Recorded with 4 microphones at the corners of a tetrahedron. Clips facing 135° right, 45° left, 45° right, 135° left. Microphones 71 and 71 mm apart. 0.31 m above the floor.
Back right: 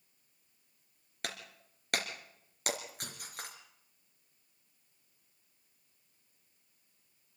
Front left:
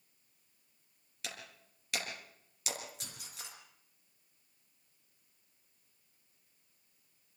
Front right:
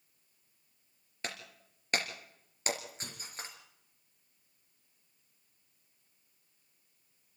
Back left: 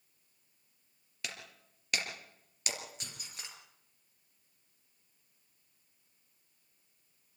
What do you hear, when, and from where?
1.2 s breaking glass: 100° right, 3.5 m